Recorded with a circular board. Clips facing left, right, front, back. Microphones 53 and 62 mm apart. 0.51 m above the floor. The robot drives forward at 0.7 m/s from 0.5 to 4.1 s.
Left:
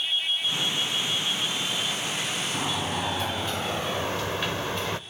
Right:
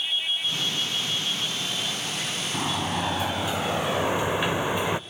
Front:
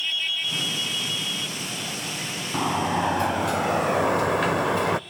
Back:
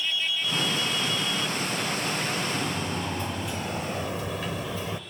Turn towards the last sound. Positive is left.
turn(degrees=-15)